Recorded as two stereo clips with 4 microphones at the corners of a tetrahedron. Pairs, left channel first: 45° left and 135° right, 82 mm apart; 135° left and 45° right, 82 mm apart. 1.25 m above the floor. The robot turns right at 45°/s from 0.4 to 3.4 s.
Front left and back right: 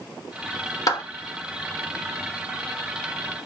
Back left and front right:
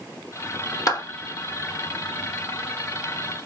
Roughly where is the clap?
Left.